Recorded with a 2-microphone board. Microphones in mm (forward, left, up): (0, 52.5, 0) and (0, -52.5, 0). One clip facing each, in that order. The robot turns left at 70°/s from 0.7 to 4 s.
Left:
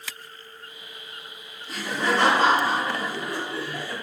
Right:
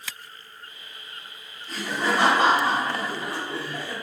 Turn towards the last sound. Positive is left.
turn(degrees=-145)